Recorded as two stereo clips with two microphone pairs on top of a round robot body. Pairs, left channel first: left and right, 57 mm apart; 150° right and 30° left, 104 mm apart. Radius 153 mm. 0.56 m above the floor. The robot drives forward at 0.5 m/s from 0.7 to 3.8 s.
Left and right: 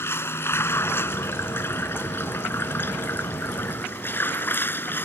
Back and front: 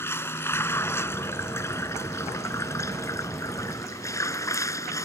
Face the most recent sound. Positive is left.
turn(degrees=150)